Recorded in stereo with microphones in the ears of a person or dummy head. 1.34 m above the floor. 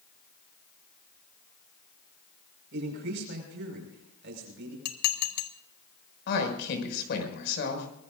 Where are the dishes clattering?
55° left (ahead or behind), 1.5 m.